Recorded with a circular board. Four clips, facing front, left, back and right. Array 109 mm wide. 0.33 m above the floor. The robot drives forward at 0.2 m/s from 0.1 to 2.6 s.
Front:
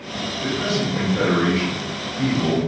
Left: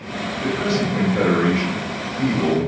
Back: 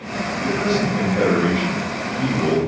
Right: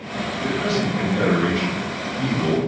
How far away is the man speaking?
About 1.2 m.